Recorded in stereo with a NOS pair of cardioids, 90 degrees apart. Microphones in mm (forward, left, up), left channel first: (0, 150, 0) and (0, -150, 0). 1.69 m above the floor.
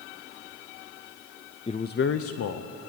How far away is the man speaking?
About 0.7 m.